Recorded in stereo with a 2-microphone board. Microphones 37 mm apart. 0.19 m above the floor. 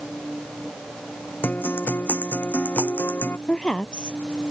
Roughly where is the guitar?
Left.